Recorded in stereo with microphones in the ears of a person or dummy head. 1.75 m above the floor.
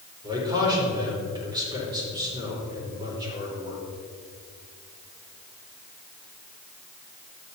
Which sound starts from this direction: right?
A man speaking, at 0.2 s.